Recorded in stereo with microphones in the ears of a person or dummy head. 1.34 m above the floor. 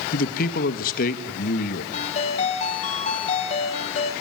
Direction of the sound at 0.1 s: 50° left (ahead or behind).